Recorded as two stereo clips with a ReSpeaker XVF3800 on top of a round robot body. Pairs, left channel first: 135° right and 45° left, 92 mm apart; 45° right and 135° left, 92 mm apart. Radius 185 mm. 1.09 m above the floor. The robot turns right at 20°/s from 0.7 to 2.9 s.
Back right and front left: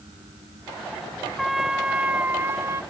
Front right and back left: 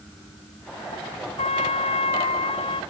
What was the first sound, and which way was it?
A trumpet, 45° right.